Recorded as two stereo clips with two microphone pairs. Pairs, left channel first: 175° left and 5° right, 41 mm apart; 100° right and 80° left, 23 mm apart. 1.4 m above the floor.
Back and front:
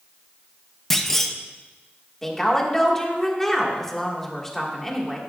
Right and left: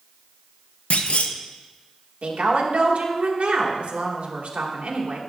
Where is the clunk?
100° right, 0.7 m.